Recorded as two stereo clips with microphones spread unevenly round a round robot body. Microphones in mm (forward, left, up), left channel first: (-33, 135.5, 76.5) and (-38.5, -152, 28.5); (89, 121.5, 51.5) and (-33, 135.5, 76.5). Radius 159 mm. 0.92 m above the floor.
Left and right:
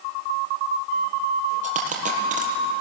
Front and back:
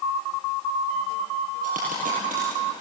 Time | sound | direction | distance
1.6 | a dropped coin | 155° right | 5 m